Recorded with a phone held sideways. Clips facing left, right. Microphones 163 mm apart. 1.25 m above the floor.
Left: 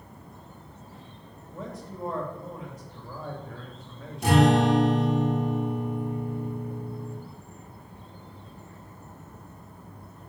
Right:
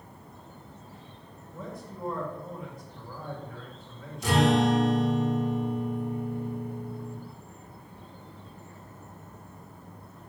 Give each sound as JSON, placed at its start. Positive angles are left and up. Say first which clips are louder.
{"t": 1.5, "sound": "a man speaking", "louder": "left 2 dB", "side_deg": 80, "distance_m": 3.0}
{"t": 4.2, "sound": "a guitar", "louder": "left 3 dB", "side_deg": 60, "distance_m": 2.5}